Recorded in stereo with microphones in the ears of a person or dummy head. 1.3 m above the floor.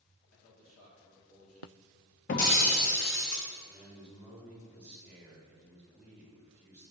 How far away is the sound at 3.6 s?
About 2.5 m.